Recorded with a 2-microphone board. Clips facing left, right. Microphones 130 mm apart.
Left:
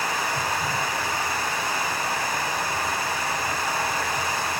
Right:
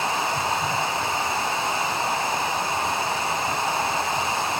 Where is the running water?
25° right (ahead or behind), 1.2 m.